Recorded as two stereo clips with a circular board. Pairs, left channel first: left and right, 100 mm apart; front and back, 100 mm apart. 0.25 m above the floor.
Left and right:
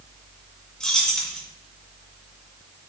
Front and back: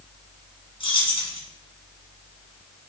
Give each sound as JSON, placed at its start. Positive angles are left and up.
{"t": 0.8, "sound": "keys jangling", "azimuth_deg": 5, "distance_m": 1.9}